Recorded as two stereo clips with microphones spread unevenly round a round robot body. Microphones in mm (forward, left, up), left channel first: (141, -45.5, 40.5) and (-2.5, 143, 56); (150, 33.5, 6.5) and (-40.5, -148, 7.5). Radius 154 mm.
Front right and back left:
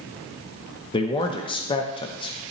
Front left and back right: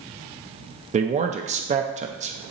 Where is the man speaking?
95° right, 0.5 m.